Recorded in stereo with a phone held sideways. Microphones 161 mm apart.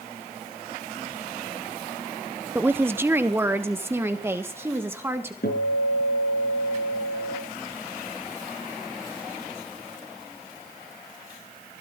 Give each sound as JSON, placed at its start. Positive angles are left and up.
{"t": 2.5, "sound": "a woman speaking", "side_deg": -15, "distance_m": 0.8}
{"t": 5.4, "sound": "a guitar", "side_deg": 70, "distance_m": 5.0}